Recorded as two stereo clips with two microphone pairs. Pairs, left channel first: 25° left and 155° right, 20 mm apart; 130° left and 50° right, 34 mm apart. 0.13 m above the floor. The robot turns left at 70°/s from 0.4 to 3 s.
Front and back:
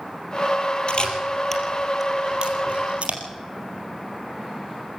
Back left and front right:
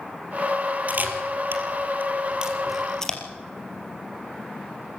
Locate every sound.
0.9 s a camera shutter: 10° right, 3.5 m; by 3.2 s 155° right, 3.5 m